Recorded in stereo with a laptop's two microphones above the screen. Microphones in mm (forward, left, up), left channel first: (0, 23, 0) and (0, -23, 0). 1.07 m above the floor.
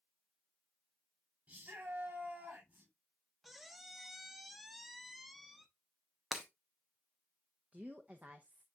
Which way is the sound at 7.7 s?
30° right (ahead or behind).